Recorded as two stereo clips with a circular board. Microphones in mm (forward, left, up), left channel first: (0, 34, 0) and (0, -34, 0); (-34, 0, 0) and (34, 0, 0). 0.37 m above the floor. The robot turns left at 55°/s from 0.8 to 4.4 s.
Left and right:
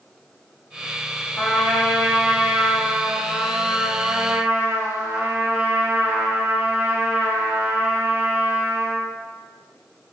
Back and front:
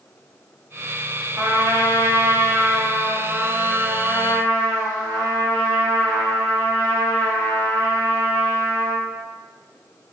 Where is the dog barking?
I don't hear a dog barking.